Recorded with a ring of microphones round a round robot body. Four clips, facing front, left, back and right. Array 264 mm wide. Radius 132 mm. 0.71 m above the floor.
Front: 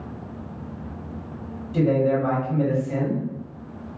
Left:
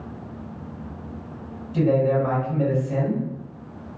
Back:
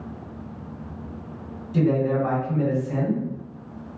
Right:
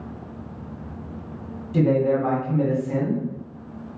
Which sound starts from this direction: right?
A man speaking, at 1.7 s.